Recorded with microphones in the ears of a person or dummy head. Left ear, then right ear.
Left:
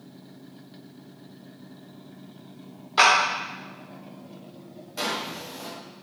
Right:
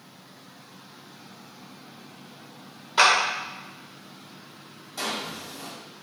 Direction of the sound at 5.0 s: 15° left (ahead or behind).